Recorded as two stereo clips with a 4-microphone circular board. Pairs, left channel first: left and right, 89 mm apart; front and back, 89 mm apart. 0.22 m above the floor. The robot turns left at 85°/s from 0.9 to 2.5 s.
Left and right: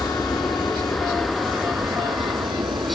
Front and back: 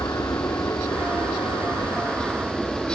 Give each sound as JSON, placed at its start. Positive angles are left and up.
{"t": 0.0, "sound": "an aircraft", "azimuth_deg": 40}